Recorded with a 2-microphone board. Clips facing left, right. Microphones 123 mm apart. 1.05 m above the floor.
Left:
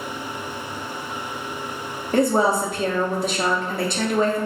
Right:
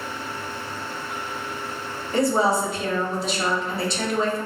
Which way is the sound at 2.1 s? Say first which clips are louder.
Left 2 dB; 50° left (ahead or behind).